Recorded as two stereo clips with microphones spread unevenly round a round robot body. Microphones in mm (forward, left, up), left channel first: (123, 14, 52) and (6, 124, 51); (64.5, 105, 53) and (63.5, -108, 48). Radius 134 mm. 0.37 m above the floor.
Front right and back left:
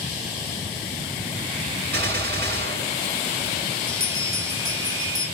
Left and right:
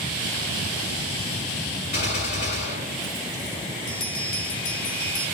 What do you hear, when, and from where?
1.9 s a gunshot: 140° left, 3 m
3.9 s a bell: 85° left, 3 m